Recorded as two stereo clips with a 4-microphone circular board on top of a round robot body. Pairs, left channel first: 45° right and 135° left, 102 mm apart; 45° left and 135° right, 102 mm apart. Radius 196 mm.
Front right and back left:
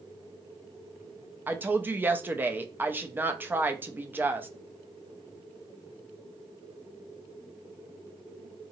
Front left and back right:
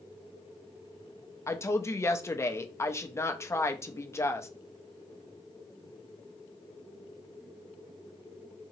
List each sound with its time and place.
1.5 s a woman speaking: 80° left, 0.7 m